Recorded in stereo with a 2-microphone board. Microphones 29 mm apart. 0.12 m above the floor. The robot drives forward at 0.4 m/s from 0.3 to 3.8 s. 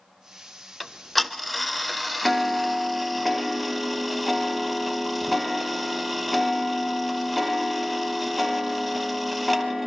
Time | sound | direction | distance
0.8 | ticking | 5° left (ahead or behind) | 0.6 m